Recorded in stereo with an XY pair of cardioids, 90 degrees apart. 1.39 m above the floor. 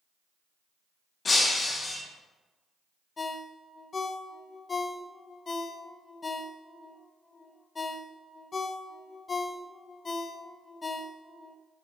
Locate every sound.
1.2 s breaking glass: 45° left, 2.5 m
3.2 s a ringtone: 40° left, 0.9 m